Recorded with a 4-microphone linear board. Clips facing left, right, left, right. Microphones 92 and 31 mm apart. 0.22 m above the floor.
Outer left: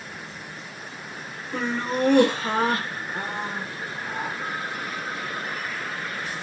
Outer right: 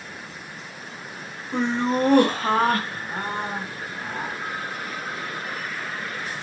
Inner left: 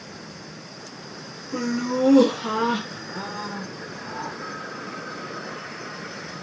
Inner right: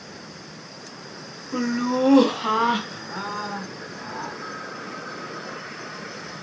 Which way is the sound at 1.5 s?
20° right (ahead or behind).